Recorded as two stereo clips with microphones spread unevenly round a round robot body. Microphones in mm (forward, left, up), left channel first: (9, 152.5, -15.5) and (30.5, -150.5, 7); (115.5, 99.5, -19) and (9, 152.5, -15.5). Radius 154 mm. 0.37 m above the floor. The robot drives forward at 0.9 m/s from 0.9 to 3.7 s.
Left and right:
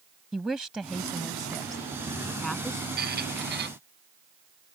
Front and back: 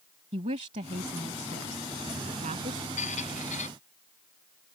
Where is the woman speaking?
175° right; by 2.9 s straight behind.